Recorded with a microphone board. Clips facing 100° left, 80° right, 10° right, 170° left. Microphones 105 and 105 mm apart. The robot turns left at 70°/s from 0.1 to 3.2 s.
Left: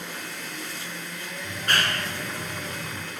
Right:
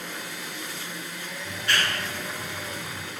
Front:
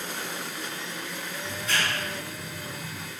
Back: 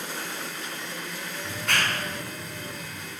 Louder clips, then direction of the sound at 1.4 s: Left 1 dB, back 2 dB; 160° left.